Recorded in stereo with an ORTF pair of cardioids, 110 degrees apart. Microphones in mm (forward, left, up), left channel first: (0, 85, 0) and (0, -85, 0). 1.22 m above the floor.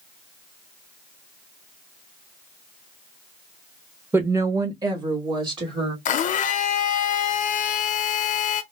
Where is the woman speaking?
15° right, 0.9 m; by 6.0 s 30° right, 2.5 m.